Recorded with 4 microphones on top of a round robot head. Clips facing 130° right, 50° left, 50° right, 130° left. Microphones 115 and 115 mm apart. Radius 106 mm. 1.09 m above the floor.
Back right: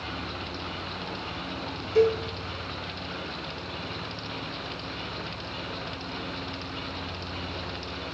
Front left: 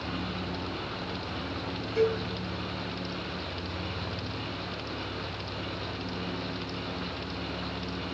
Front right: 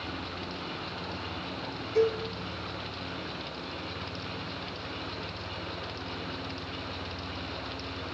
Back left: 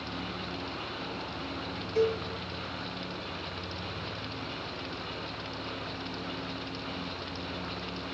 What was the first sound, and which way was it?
A cowbell, 105° right.